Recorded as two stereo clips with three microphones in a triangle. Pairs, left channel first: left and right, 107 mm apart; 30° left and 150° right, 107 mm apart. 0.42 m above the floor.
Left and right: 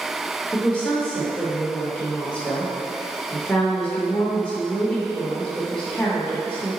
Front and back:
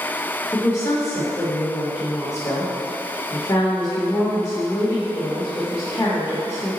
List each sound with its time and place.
0.5 s a woman speaking: 25° left, 0.8 m